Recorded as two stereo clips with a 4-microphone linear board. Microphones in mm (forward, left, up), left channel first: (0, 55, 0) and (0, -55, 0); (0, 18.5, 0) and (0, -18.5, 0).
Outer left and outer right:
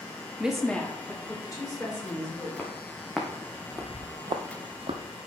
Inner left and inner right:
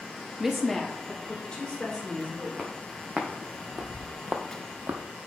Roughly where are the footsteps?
Centre.